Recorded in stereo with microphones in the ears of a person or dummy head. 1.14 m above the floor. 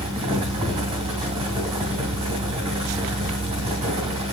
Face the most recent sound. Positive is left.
turn(degrees=-30)  # may be behind; listen again after turning